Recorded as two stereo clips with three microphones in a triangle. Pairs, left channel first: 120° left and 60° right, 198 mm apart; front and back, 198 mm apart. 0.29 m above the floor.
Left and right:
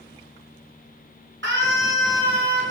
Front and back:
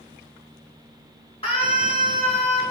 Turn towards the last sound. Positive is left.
turn(degrees=-60)